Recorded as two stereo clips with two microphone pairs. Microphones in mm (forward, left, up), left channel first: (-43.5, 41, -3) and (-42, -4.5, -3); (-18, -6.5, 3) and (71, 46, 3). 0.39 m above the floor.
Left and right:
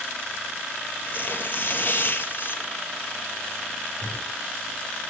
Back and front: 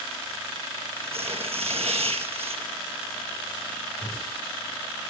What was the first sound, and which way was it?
Tearing paper, 45° left.